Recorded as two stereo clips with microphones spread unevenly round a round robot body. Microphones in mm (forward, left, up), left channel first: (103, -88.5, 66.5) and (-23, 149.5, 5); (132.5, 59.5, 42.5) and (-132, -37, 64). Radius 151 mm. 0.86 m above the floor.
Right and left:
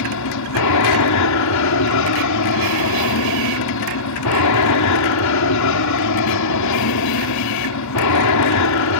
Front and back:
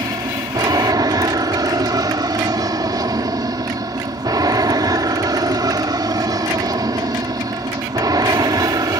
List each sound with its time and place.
0.0 s an aircraft: 85° right